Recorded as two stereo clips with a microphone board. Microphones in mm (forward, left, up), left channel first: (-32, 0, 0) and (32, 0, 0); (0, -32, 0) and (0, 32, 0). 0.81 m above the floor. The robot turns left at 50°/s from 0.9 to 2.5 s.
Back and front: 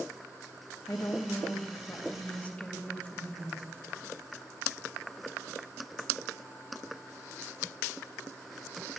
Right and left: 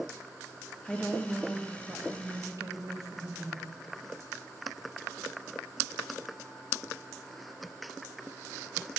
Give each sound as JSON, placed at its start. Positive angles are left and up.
{"t": 0.8, "sound": "a woman speaking", "azimuth_deg": -165, "distance_m": 1.1}